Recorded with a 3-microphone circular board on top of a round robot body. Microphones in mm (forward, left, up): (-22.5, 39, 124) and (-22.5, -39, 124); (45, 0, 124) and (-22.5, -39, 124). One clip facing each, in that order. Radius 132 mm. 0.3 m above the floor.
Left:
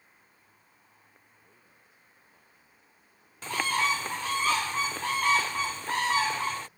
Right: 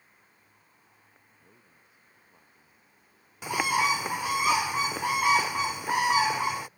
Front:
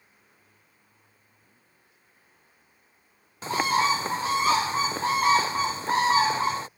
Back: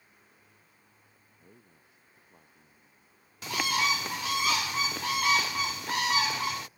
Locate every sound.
1.4 s a man speaking: 170° right
3.4 s a bird: 15° right